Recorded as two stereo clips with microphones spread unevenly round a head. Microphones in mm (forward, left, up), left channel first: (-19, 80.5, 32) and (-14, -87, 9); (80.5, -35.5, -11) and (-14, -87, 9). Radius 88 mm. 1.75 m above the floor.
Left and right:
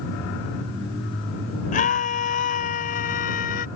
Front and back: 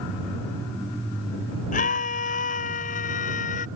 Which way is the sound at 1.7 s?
45° left.